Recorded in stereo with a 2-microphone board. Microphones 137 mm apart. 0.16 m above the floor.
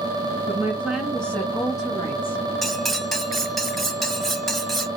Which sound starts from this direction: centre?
Cutlery clinking, at 2.6 s.